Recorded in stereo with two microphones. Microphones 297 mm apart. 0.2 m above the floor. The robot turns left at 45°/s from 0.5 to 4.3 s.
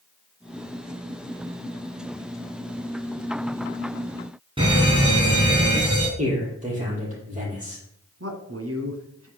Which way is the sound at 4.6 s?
15° right (ahead or behind).